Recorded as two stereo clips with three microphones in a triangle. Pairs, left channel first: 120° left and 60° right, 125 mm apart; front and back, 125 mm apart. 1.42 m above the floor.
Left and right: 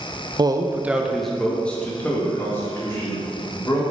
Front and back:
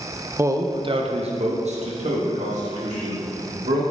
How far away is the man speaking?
About 0.7 m.